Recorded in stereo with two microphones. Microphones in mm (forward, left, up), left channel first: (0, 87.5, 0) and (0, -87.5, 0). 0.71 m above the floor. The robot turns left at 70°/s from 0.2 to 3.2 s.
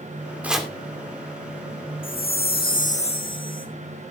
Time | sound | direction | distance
0.4 | chopping | 10° right (ahead or behind) | 1.9 m
2.0 | a chime | 115° left | 1.5 m